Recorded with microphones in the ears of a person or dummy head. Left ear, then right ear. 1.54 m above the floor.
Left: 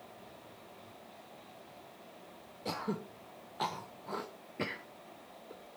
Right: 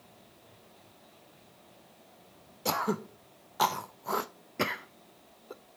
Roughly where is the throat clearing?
Right.